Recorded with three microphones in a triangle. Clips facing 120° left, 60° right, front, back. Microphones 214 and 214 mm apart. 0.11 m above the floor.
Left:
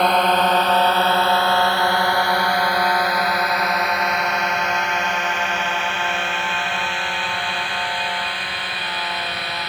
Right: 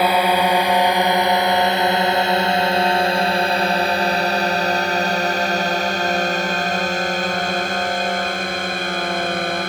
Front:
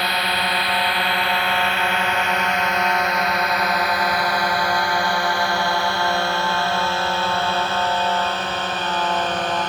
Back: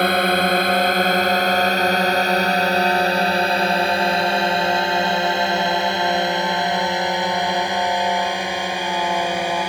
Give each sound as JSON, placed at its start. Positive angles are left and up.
{"t": 0.0, "sound": "a drone", "azimuth_deg": -140}